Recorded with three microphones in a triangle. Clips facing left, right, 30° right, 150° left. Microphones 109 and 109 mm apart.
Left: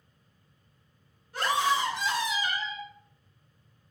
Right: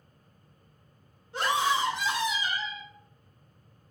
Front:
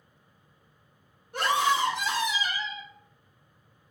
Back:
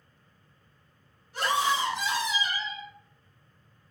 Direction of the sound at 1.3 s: 30° right.